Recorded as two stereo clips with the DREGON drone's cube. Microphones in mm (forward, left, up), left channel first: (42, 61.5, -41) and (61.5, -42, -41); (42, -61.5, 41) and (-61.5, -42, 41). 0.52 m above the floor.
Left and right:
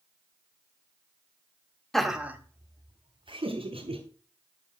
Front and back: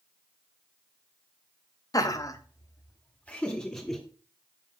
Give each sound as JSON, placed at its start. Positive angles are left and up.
{"t": 1.9, "sound": "laughter", "azimuth_deg": 15, "distance_m": 1.2}